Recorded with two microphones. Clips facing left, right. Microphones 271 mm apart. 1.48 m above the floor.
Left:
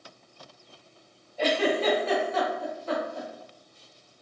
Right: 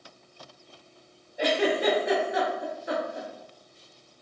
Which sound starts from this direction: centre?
A giggle, at 1.4 s.